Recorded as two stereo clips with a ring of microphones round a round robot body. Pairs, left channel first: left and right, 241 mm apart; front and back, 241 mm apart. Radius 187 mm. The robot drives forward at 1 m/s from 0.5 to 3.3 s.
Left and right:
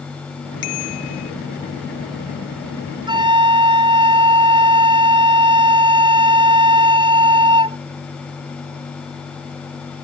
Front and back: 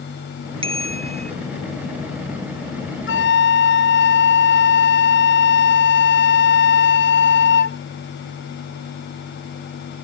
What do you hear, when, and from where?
0.6 s a bicycle bell: 115° left; by 1.3 s 120° left
3.1 s a flute: 20° right; by 7.8 s 25° right